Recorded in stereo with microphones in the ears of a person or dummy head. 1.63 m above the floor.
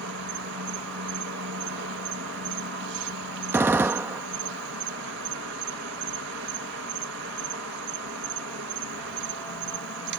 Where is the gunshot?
10° right (ahead or behind).